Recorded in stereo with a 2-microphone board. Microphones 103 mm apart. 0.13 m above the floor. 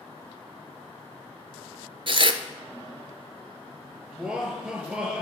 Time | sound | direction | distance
2.1 | tearing paper | 55° right (ahead or behind) | 0.6 m
4.1 | laughter | 5° right (ahead or behind) | 2.5 m